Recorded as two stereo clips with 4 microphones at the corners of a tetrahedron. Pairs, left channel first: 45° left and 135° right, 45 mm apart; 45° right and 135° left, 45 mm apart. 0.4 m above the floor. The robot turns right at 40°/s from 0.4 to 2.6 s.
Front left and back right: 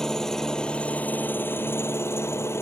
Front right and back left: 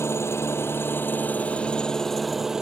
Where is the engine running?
30° right; by 2.6 s 55° left.